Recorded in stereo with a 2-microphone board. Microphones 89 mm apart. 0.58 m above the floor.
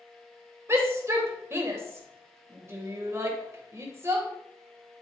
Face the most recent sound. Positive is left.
turn(degrees=-30)  # may be behind; listen again after turning